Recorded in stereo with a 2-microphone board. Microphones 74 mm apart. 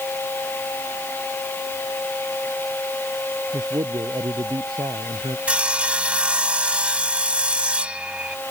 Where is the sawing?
15° right (ahead or behind).